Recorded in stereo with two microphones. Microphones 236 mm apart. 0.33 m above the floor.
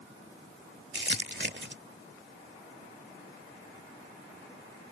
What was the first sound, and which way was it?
Crumpling, 50° right (ahead or behind).